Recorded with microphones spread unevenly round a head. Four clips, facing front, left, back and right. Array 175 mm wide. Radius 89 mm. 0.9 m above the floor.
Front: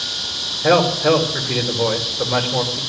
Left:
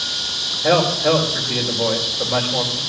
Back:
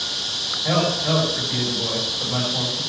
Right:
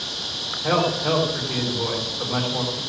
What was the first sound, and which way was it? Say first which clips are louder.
A man speaking: left 5 dB, front 7 dB; 25° left.